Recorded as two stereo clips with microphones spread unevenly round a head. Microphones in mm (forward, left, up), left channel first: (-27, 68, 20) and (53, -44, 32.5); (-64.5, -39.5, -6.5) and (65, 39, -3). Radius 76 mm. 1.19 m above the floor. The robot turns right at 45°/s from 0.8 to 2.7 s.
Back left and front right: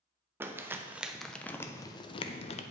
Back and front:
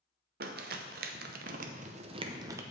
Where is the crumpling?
20° left, 0.7 m; by 2.6 s 105° left, 0.7 m.